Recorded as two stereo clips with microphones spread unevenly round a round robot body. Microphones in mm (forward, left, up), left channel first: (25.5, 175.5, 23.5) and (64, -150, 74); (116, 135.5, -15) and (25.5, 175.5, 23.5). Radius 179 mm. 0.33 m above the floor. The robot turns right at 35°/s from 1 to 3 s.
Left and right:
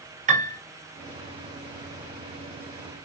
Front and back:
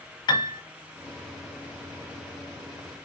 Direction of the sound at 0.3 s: 10° right.